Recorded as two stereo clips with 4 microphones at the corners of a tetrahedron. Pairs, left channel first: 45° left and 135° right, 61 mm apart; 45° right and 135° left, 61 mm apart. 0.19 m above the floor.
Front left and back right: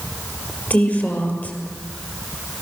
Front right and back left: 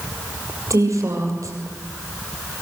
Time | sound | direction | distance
0.7 | a woman speaking | 105° left | 6.5 m